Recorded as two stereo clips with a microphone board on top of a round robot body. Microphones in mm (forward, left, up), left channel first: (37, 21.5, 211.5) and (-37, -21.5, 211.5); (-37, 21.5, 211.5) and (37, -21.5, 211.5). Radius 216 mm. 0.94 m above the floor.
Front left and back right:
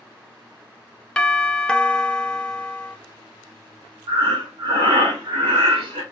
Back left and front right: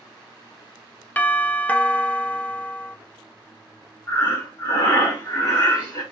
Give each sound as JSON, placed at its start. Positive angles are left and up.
{"t": 1.2, "sound": "a doorbell", "azimuth_deg": 100, "distance_m": 0.6}
{"t": 4.1, "sound": "breathing", "azimuth_deg": -155, "distance_m": 0.5}